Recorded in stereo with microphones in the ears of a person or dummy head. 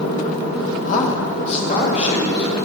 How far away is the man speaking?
About 1.4 m.